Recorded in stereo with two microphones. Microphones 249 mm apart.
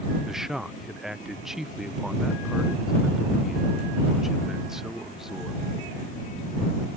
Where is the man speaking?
Centre (ahead or behind).